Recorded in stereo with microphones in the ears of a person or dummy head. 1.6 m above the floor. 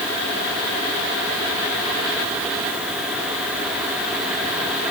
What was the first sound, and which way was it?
Only background noise.